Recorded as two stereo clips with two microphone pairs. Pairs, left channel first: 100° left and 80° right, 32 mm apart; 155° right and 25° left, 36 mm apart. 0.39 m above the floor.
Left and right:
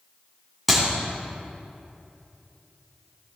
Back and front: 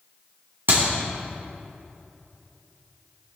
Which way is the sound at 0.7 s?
5° left.